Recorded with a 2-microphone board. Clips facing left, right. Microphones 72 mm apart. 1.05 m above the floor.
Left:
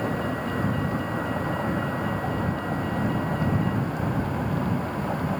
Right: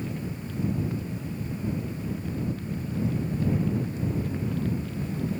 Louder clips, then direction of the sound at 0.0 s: Left 7 dB; 80° left.